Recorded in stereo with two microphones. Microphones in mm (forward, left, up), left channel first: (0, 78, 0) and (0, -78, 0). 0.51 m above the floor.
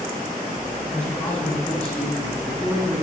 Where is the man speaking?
20° left (ahead or behind), 4.5 m; by 3.0 s centre (ahead or behind), 4.5 m.